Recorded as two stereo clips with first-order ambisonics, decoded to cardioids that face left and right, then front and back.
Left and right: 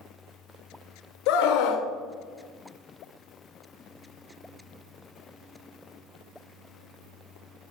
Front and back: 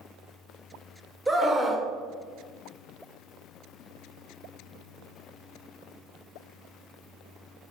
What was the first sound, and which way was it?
A scream, 105° left.